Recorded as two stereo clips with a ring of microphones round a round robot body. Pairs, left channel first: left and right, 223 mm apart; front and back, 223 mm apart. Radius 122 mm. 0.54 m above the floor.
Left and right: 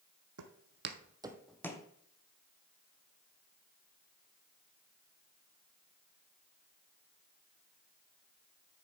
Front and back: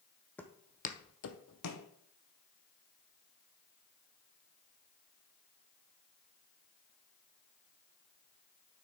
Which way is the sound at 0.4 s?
85° right.